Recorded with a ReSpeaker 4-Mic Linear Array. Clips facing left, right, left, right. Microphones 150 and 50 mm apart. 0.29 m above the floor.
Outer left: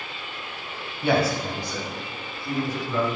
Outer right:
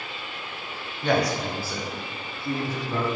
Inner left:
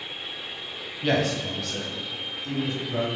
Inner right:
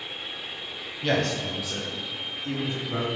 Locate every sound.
1.0 s a man speaking: 10° left (ahead or behind), 1.4 m; by 3.1 s 35° right (ahead or behind), 2 m